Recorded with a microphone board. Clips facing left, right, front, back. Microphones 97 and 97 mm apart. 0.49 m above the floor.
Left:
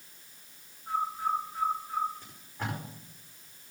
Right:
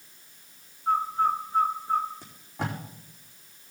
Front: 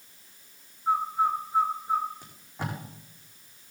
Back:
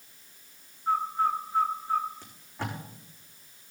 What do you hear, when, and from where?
0.9 s a bird: 75° right, 1.0 m
2.2 s tape being pulled: 75° right, 4.5 m